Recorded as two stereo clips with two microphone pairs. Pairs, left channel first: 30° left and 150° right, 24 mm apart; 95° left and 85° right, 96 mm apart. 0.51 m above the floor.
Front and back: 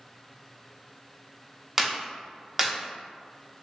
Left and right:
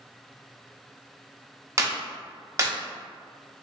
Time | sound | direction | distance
1.8 | a clap | 90° right | 0.7 m